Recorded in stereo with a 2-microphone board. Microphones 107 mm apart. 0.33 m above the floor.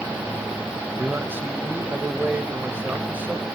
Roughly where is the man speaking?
Centre.